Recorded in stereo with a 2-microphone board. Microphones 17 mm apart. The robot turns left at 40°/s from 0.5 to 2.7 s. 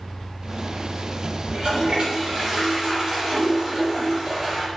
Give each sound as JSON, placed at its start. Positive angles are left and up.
{"t": 1.5, "sound": "a toilet flushing", "azimuth_deg": -95, "distance_m": 8.0}